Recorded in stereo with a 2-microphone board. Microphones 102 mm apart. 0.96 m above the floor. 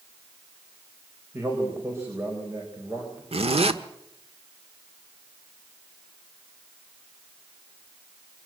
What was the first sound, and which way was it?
A man speaking, 25° right (ahead or behind).